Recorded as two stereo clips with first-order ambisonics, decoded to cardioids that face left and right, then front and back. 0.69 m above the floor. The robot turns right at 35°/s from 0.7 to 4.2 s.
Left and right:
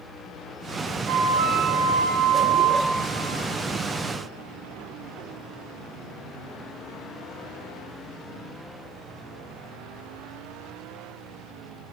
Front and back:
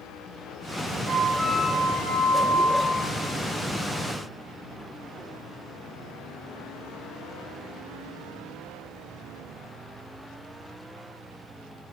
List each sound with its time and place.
1.1 s a flute: 115° right, 1.1 m; by 3.0 s 45° right, 1.1 m